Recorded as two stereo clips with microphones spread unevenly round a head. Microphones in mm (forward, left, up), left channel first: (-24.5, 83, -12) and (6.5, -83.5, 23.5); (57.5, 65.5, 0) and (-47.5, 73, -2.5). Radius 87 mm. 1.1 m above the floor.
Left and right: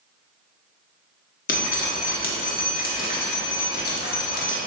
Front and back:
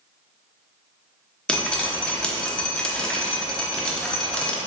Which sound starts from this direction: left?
Dripping, at 1.5 s.